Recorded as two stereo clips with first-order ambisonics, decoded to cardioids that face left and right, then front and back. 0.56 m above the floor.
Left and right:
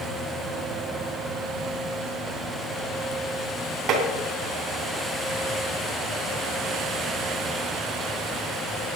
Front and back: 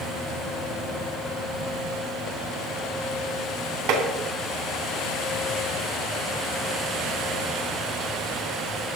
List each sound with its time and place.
3.9 s tapping: 145° right, 3 m